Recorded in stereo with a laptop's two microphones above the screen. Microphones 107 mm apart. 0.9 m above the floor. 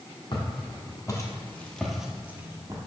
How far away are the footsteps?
About 1.6 m.